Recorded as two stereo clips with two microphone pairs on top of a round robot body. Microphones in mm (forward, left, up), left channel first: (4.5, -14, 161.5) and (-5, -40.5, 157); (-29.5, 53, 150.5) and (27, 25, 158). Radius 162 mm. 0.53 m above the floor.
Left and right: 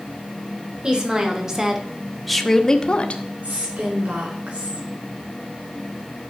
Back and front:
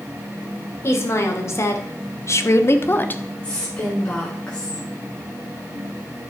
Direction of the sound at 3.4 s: 135° right.